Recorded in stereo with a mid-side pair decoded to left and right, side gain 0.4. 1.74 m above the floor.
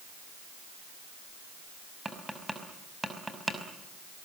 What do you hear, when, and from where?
2.0 s tapping: 10° right, 5.5 m